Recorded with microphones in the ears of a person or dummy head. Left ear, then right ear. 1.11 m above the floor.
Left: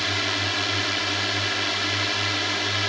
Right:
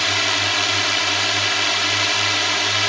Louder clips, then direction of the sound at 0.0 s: Right 6 dB; 30° right (ahead or behind).